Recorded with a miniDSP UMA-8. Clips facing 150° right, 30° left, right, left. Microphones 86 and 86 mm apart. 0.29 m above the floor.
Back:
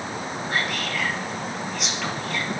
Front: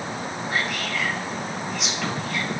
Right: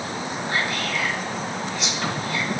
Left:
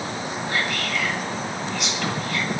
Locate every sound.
0.5 s whispering: 60° right, 1.2 m